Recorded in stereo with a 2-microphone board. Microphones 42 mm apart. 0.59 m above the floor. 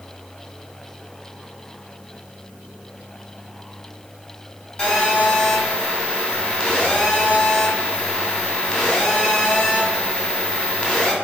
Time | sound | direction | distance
4.8 | a phone buzzing | 25° left (ahead or behind) | 2 m